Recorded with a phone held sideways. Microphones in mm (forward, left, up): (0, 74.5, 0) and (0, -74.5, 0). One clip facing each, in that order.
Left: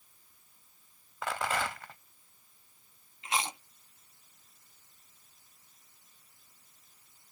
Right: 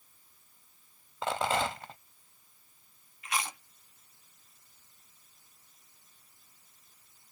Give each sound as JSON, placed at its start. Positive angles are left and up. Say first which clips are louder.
{"t": 1.2, "sound": "a rattle", "louder": "right 3 dB", "side_deg": -25}
{"t": 3.2, "sound": "chewing", "louder": "left 2 dB", "side_deg": 25}